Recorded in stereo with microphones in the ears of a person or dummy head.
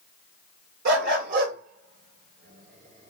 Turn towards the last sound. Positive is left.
turn(degrees=-35)  # may be behind; listen again after turning